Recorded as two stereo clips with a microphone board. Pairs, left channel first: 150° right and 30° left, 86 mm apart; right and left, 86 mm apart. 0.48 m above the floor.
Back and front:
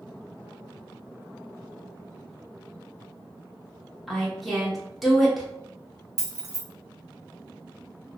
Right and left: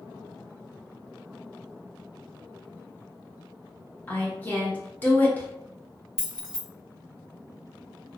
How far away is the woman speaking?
About 0.9 m.